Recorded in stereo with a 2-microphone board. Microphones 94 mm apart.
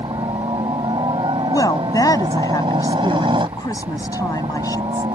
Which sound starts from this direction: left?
A woman speaking, at 1.4 s.